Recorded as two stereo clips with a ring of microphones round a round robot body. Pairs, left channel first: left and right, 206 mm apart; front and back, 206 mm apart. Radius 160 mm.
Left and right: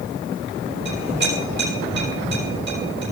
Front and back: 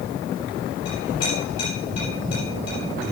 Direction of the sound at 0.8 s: 60° right.